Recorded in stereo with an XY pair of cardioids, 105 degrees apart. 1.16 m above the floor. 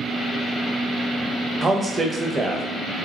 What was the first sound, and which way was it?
A man speaking, 25° right.